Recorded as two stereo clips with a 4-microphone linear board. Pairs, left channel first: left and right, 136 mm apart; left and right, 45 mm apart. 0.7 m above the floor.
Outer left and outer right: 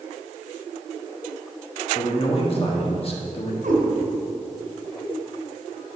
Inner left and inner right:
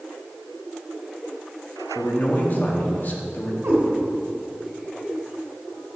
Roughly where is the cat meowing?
Right.